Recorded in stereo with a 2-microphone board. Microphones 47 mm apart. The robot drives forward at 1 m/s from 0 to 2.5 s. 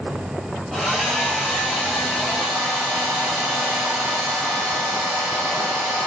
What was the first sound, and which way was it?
A hair dryer, centre (ahead or behind).